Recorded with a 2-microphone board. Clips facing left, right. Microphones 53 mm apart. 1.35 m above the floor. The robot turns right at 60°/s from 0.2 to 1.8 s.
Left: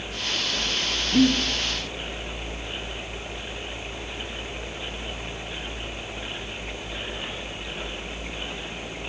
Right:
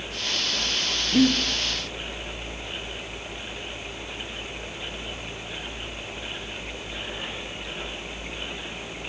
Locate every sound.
1.1 s breathing: 15° right (ahead or behind), 1.0 m; by 1.4 s 10° right (ahead or behind), 1.0 m